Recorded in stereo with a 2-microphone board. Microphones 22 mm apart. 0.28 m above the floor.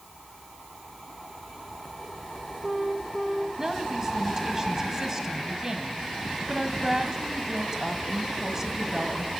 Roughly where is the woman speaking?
Right.